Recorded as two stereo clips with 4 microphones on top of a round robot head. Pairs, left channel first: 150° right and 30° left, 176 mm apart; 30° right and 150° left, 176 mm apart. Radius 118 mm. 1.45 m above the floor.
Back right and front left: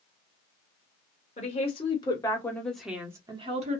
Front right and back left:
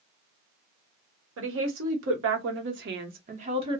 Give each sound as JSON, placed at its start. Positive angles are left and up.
{"t": 1.4, "sound": "a woman speaking", "azimuth_deg": 155, "distance_m": 1.2}